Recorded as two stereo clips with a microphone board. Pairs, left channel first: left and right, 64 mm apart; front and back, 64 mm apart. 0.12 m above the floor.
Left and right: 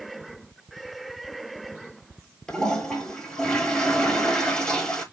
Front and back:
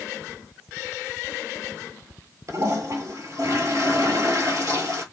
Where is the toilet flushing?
170° left, 1.1 m.